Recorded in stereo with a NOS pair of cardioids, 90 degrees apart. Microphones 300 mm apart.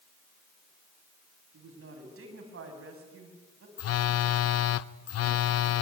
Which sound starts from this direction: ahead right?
A woman speaking, at 1.5 s.